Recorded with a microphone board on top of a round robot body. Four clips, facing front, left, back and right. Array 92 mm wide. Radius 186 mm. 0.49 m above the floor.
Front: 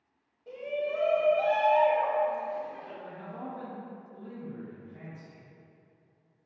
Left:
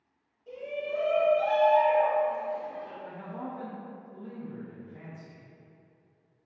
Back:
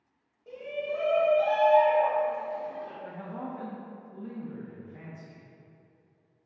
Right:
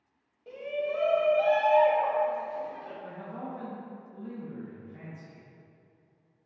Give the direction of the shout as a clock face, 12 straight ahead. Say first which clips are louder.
Right 2 dB, front 1 dB; 3 o'clock.